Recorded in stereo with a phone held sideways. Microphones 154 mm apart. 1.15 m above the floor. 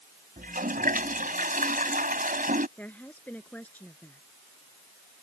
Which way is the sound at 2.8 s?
10° left (ahead or behind).